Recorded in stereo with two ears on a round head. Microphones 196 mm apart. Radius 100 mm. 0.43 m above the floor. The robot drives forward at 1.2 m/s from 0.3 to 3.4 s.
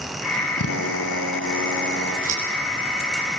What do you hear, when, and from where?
0.6 s a drill: 80° left, 3 m; by 2.1 s 55° left (ahead or behind), 3.5 m
2.2 s scissors: 35° right (ahead or behind), 5.5 m